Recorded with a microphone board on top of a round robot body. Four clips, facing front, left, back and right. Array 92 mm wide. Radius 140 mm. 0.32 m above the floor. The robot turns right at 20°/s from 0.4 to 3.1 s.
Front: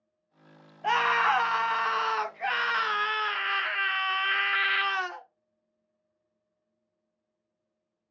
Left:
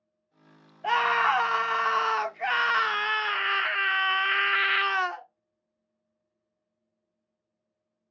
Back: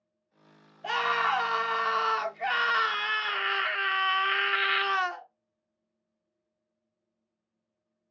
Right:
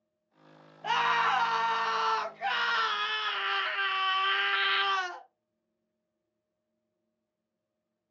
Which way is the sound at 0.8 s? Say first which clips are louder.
Left 3 dB, front 3 dB; 40° left.